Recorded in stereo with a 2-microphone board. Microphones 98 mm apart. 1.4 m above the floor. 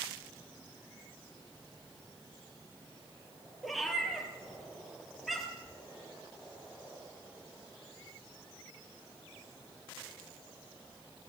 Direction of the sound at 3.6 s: Centre (ahead or behind).